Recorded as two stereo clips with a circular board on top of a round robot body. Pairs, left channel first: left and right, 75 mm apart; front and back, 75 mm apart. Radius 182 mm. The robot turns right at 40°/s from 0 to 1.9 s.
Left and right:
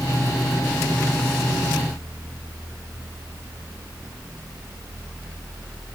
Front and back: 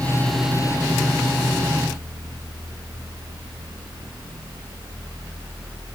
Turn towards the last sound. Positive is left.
No sound to turn to.